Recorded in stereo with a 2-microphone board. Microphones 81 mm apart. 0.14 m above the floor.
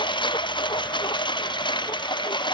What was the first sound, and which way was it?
A lawn mower, 75° left (ahead or behind).